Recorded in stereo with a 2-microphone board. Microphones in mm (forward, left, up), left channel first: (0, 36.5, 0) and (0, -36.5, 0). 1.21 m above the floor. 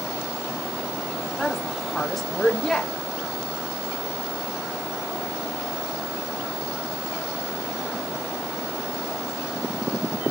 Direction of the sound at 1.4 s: 5° left (ahead or behind).